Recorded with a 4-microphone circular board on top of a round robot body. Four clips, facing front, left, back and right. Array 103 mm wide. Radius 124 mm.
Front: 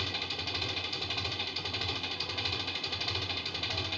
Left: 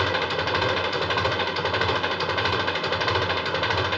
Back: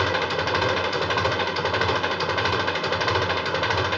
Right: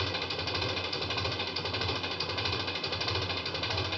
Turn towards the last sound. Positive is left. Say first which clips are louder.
# left 11 dB, back 17 dB
turn(degrees=145)